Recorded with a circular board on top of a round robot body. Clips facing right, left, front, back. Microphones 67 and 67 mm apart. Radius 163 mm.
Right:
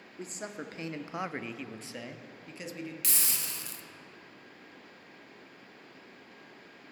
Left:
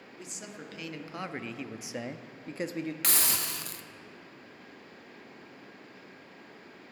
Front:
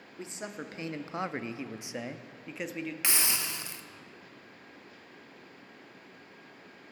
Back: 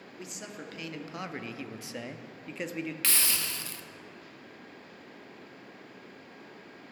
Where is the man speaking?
55° right, 1.1 m; by 2.9 s 90° left, 1.0 m.